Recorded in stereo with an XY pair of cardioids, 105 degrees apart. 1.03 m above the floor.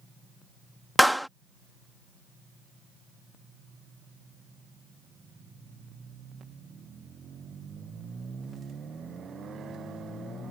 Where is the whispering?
I don't hear whispering.